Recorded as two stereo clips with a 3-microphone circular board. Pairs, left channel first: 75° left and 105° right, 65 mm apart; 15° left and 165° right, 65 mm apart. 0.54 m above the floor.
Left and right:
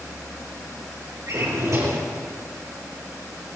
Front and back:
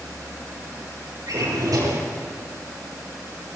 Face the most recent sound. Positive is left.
turn(degrees=-145)